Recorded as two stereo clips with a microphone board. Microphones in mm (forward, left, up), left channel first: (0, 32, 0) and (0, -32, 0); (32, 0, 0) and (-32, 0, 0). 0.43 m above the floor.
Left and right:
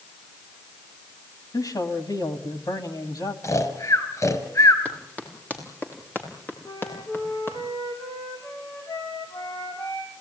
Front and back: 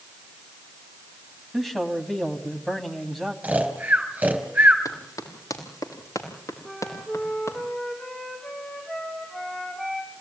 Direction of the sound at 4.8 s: 20° left.